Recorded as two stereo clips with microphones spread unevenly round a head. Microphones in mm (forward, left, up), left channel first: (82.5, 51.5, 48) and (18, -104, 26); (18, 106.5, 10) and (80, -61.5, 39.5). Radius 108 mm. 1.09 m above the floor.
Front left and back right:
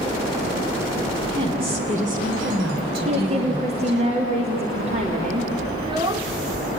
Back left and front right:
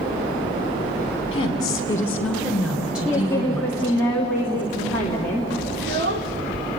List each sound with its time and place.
1.3 s a woman speaking: 175° left, 2.5 m; by 4.0 s 145° right, 5 m
3.0 s a woman speaking: 170° right, 2.5 m
5.8 s a child speaking: 50° right, 2 m